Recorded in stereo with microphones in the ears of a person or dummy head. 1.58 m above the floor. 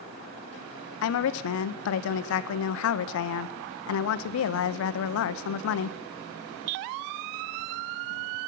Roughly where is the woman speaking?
Left.